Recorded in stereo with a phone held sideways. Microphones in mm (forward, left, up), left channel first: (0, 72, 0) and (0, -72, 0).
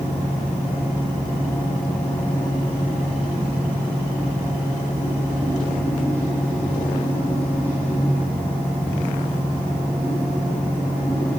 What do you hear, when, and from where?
0.0 s a fan: 10° left (ahead or behind), 3 m